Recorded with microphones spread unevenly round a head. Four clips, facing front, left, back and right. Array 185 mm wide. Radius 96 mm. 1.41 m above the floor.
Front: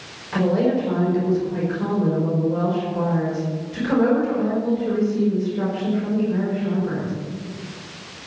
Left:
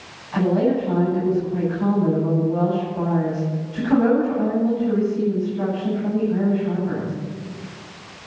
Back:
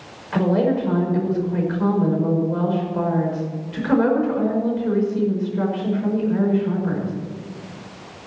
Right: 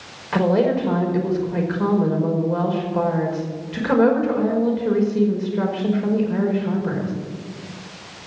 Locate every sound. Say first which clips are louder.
0.3 s a woman speaking: right 1 dB, even; 100° right, 5 m